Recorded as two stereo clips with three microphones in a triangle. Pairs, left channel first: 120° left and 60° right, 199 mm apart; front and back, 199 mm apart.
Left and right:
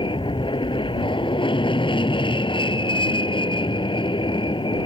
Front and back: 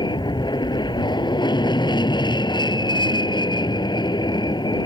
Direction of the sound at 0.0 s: 60° left.